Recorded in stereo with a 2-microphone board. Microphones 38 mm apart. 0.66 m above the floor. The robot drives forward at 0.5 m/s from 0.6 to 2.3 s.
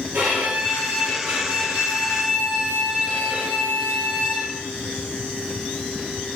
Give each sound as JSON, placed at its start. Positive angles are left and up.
{"t": 0.1, "sound": "a violin", "side_deg": -60, "distance_m": 2.0}